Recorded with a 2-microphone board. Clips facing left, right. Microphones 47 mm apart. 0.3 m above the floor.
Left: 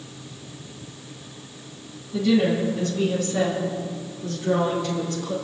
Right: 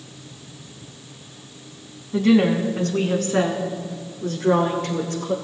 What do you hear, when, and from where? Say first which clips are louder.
2.1 s a woman speaking: right 3 dB; 55° right (ahead or behind), 2.5 m; by 5.3 s 65° right (ahead or behind), 5 m